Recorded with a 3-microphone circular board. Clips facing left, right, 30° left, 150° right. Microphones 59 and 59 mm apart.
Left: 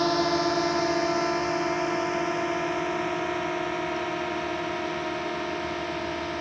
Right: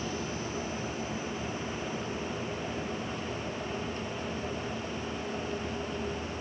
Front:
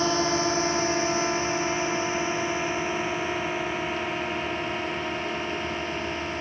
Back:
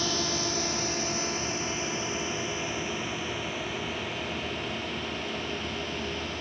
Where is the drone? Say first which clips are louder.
Left 12 dB, front 7 dB; 85° left.